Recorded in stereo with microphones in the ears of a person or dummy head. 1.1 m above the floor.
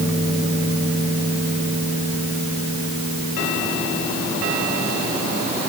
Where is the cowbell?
I don't hear a cowbell.